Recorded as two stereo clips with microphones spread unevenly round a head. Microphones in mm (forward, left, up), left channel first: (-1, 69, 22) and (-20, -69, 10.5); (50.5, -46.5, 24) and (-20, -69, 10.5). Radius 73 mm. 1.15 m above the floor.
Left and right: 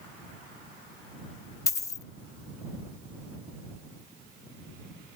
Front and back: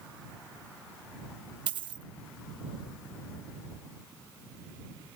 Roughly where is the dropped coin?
Behind left.